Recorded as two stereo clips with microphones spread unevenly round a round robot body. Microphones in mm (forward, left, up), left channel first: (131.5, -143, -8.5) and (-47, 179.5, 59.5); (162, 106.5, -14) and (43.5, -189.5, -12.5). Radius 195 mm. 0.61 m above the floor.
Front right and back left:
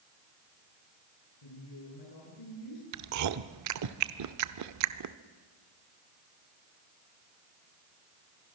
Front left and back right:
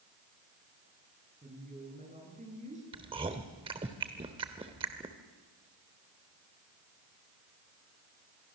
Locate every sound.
1.4 s a woman speaking: 45° right, 10 m
2.9 s chewing: 170° left, 0.7 m